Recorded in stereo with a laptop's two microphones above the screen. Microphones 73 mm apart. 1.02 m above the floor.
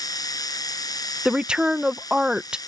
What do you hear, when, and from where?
0.0 s a machine running: 60° left (ahead or behind)
1.2 s a woman speaking: 15° right (ahead or behind)